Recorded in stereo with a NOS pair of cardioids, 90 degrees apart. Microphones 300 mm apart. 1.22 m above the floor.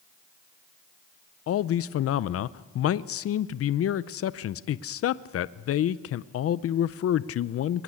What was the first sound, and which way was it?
A man speaking, 50° left.